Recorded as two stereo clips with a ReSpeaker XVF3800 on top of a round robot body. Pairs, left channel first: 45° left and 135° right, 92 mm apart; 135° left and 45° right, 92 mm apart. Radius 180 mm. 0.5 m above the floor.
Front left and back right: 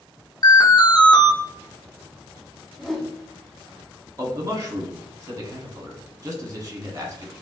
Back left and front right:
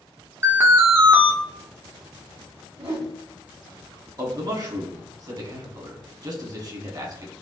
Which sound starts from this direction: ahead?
An alarm, at 0.4 s.